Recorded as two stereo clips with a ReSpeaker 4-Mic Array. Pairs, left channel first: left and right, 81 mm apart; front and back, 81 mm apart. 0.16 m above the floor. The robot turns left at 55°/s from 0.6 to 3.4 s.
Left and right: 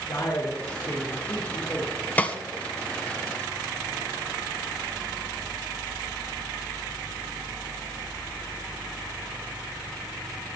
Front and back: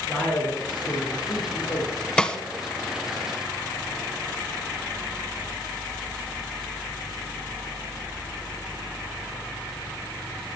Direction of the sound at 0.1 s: 75° left.